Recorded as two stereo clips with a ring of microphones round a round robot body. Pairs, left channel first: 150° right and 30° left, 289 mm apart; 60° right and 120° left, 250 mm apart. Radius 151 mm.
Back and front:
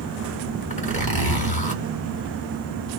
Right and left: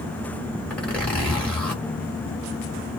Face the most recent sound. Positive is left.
turn(degrees=-140)